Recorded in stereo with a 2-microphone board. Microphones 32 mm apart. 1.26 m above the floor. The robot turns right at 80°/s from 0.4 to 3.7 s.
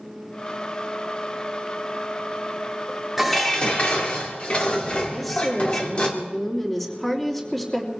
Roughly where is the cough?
No cough in this recording.